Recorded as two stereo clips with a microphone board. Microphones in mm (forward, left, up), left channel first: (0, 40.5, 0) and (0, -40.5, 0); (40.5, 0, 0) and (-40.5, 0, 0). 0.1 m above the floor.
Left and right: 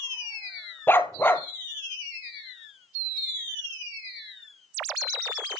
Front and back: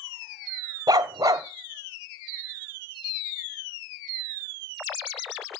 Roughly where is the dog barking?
Behind left.